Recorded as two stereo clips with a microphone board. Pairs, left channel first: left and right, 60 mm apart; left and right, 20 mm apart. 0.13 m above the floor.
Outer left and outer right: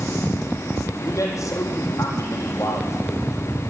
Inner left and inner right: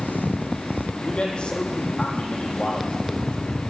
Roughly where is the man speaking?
Left.